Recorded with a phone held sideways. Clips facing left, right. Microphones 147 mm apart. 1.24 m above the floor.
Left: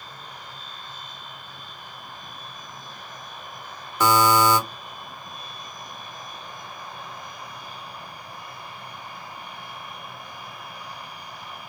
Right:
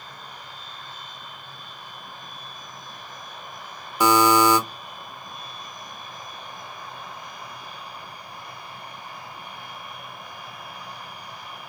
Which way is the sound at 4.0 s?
15° right (ahead or behind).